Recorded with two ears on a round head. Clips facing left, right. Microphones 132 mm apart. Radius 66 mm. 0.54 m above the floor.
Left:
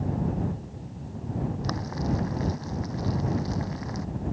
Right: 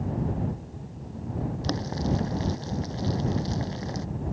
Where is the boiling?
35° right (ahead or behind).